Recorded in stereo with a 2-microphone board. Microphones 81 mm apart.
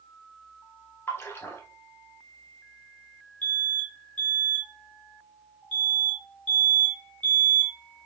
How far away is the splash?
About 0.9 m.